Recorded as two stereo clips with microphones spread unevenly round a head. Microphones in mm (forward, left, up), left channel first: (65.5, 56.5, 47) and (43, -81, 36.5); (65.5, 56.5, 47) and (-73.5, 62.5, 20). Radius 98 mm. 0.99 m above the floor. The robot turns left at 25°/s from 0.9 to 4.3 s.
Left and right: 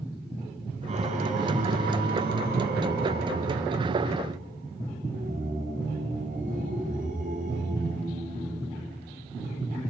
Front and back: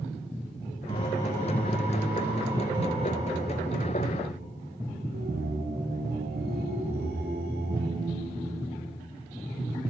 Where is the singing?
65° right, 2.5 m; by 8.7 s 150° right, 2.5 m.